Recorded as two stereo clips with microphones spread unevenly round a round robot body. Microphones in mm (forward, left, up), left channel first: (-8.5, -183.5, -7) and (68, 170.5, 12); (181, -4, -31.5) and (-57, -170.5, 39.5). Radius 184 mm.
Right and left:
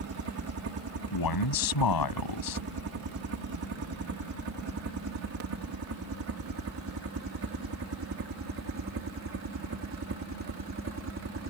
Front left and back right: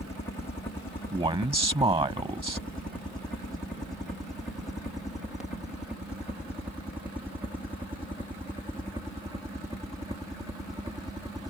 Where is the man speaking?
70° right.